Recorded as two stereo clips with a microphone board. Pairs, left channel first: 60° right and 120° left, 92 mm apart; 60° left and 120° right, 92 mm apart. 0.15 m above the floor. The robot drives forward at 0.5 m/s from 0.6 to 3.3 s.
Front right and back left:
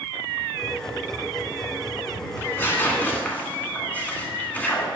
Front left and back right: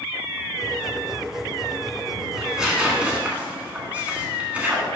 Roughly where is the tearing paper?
Ahead right.